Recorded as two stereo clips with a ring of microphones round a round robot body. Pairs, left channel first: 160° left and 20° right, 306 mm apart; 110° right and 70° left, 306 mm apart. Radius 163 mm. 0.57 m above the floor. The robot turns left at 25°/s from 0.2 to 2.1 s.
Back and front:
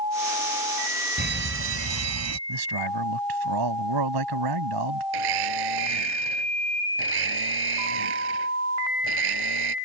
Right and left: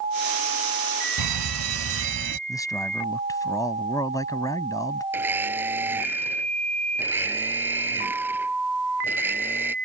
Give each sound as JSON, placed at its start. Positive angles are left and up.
{"t": 1.2, "sound": "a fire alarm", "azimuth_deg": 40}
{"t": 2.5, "sound": "a man speaking", "azimuth_deg": -35}
{"t": 5.1, "sound": "a blender", "azimuth_deg": -15}